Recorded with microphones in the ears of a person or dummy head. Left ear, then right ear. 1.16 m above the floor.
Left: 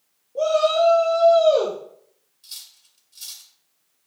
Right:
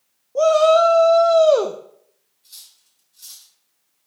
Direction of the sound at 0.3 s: 60° right (ahead or behind).